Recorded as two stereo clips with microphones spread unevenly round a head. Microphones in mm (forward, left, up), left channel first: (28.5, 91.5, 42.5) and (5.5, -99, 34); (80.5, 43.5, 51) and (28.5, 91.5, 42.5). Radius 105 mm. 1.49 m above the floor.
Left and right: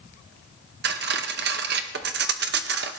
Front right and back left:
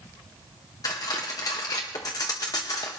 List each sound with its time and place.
0.8 s cutlery clinking: 75° right, 0.8 m